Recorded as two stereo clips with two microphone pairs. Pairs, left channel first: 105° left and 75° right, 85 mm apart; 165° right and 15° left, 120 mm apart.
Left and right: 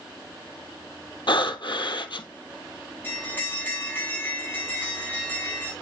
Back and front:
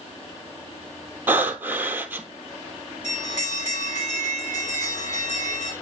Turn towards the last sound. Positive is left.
turn(degrees=175)